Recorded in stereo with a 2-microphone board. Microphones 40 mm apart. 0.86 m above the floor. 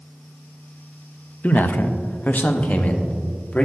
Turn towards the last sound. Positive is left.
turn(degrees=35)  # may be behind; listen again after turning